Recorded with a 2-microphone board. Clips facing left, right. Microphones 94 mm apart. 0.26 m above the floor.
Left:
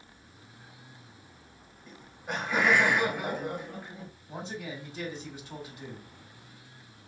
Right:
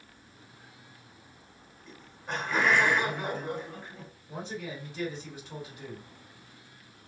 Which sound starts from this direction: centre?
Laughter, at 1.9 s.